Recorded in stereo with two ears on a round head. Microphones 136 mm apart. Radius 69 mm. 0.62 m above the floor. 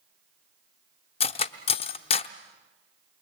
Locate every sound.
1.2 s cutlery clinking: 40° left (ahead or behind), 0.7 m